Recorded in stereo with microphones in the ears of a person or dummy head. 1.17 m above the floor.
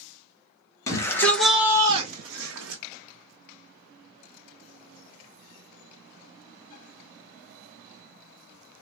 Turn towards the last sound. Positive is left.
turn(degrees=-75)  # may be behind; listen again after turning